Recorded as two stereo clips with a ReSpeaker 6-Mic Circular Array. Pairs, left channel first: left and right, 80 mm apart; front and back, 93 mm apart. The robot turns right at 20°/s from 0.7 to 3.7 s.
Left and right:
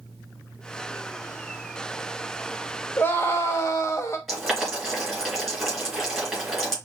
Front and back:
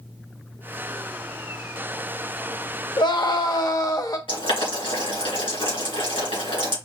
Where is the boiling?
5° left, 3 m.